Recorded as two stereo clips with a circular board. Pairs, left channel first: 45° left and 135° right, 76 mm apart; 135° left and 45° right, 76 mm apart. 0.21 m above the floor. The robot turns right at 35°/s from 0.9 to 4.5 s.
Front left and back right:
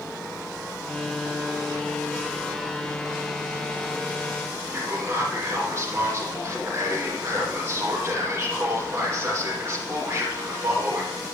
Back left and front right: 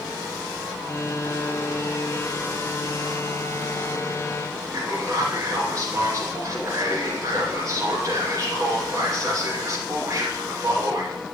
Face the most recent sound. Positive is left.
turn(degrees=-85)